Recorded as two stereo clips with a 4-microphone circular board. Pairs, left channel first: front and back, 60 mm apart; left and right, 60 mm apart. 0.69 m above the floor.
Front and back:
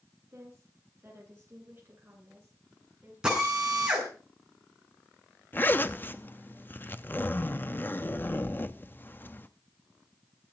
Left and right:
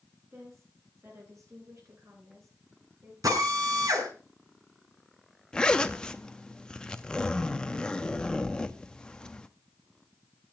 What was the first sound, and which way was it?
A woman speaking, 135° right.